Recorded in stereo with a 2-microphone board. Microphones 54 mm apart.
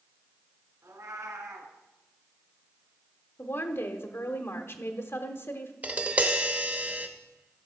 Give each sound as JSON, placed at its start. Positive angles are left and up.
{"t": 0.8, "sound": "a cat meowing", "side_deg": -75, "distance_m": 1.5}
{"t": 3.4, "sound": "a woman speaking", "side_deg": 50, "distance_m": 1.1}
{"t": 5.8, "sound": "tapping", "side_deg": -30, "distance_m": 0.9}